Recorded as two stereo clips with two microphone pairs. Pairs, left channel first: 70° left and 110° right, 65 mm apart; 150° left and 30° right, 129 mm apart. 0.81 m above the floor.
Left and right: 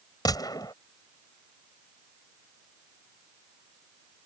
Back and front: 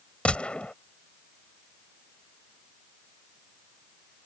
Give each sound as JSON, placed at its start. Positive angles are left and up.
{"t": 0.2, "sound": "a gunshot", "azimuth_deg": 70}